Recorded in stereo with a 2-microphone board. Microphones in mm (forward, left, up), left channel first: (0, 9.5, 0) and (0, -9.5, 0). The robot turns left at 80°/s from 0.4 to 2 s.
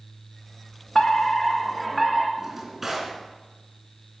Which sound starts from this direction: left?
A fire alarm, at 0.9 s.